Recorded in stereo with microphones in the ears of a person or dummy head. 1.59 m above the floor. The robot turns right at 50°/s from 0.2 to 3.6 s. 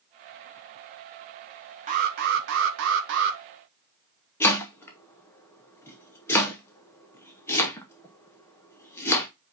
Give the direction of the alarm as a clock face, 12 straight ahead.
5 o'clock.